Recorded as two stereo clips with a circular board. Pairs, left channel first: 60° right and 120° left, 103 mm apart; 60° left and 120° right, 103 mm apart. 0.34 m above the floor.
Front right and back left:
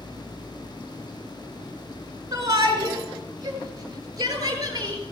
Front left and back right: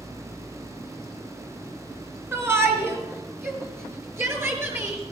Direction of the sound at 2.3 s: 170° left.